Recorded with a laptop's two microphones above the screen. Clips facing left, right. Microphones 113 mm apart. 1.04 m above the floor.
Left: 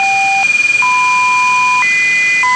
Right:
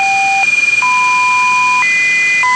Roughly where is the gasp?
I don't hear a gasp.